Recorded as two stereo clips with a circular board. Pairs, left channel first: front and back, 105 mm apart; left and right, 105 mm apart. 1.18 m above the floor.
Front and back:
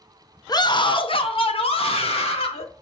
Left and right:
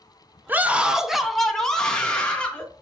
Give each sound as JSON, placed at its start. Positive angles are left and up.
{"t": 0.5, "sound": "a scream", "azimuth_deg": -25, "distance_m": 0.6}